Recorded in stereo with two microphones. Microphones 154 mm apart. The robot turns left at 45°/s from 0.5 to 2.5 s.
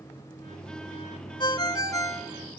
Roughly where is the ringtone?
Left.